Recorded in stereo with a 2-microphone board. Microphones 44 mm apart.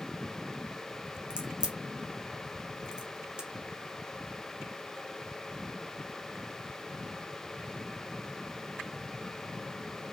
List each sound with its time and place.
1.3 s a crack: 25° right (ahead or behind), 0.6 m